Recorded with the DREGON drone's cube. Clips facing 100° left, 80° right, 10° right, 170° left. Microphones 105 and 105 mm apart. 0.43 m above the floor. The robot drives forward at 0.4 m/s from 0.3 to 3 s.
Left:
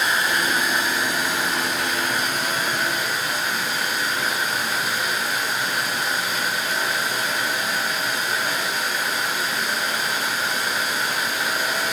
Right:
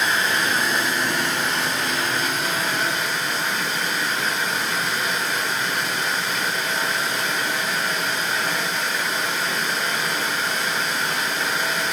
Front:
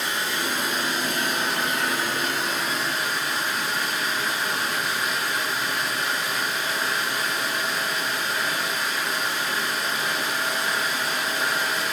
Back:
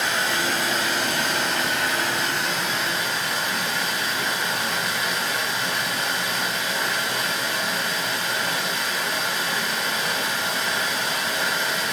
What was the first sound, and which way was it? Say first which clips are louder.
Running water: even, back 3 dB; straight behind.